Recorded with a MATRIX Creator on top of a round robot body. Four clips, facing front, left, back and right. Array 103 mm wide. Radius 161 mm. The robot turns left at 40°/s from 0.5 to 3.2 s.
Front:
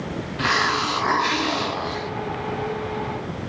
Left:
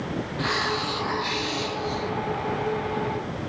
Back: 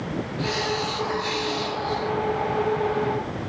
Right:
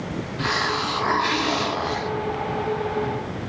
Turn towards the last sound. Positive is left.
turn(degrees=-115)